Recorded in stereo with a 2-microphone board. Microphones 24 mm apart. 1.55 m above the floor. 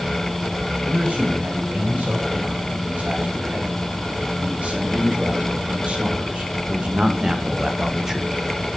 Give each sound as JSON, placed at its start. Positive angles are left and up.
{"t": 0.8, "sound": "a man speaking", "side_deg": -70, "distance_m": 6.5}